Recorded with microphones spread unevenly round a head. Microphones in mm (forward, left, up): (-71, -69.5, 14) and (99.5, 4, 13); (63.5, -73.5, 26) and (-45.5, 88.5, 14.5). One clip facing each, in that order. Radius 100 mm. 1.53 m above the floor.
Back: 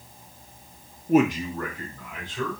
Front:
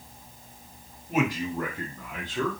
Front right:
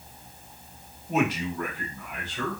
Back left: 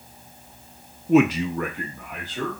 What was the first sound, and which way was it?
A man speaking, 155° left.